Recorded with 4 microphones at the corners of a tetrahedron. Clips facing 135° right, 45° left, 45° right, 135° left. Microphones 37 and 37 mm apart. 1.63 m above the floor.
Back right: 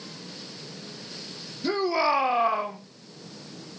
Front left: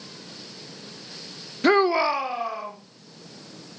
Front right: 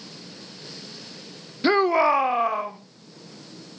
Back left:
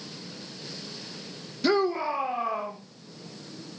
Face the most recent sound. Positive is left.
turn(degrees=-85)